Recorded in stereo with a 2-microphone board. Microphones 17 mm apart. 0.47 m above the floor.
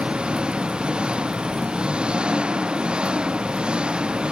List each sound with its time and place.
0.0 s an engine running: 75° right (ahead or behind)